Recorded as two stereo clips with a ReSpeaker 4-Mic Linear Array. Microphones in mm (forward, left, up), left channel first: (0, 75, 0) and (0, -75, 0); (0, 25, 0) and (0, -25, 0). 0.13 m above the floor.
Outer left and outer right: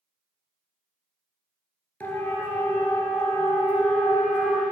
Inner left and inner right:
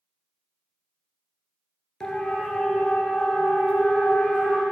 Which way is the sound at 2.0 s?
15° left (ahead or behind).